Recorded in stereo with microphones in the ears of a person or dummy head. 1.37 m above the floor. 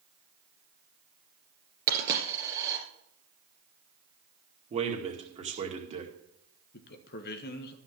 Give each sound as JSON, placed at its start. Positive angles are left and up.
{"t": 1.9, "sound": "a dropped coin", "side_deg": -15, "distance_m": 3.0}
{"t": 4.7, "sound": "a man speaking", "side_deg": -35, "distance_m": 2.0}
{"t": 6.7, "sound": "a man speaking", "side_deg": 55, "distance_m": 1.4}